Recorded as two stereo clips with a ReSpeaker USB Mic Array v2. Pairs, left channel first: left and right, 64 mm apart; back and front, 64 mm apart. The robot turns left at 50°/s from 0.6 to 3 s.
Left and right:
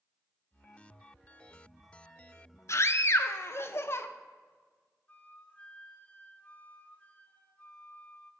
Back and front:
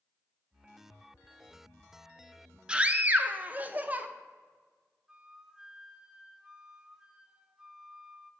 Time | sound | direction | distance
2.7 | a scream | 70° left | 0.6 m
5.1 | a flute | 65° left | 0.5 m